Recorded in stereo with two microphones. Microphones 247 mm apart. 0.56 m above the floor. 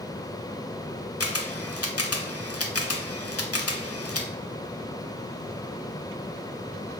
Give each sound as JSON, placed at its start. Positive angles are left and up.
{"t": 1.2, "sound": "a camera shutter", "side_deg": 70, "distance_m": 0.8}